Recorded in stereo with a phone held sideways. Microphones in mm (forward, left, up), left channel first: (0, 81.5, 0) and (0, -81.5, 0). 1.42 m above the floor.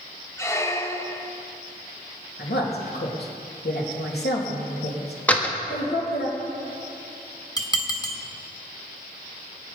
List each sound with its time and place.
0.4 s a squeak: 15° left (ahead or behind), 0.9 m
2.4 s a woman speaking: 85° left, 2.5 m
5.3 s a door slam: 10° left (ahead or behind), 1.4 m
7.6 s dishes clattering: 25° left (ahead or behind), 1.4 m